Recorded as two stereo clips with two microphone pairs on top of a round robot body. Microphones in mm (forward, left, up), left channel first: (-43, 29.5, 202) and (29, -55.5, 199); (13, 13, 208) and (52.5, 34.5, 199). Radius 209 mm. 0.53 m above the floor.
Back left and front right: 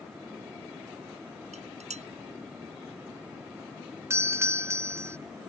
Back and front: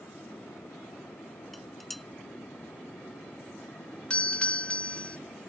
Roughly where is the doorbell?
Right.